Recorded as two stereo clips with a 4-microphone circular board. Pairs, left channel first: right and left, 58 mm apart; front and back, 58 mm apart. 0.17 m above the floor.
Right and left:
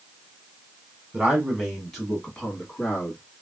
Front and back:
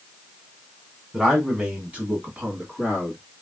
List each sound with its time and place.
1.1 s a man speaking: 125° left, 1.2 m; by 3.2 s 140° right, 1.5 m